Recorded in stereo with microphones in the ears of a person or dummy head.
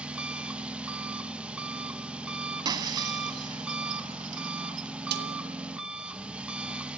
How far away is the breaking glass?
About 1.8 m.